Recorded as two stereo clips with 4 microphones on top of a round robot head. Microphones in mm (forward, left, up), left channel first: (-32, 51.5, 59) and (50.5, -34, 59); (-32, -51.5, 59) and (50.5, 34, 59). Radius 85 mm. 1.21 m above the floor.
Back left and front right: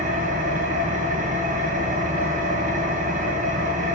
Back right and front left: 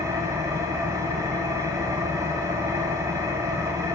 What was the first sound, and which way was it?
An engine running, 20° right.